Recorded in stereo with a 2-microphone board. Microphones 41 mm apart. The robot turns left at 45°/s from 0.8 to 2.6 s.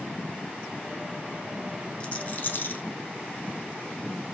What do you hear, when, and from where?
2.0 s a rattle: 25° left (ahead or behind), 0.7 m; by 2.9 s 50° left (ahead or behind), 0.7 m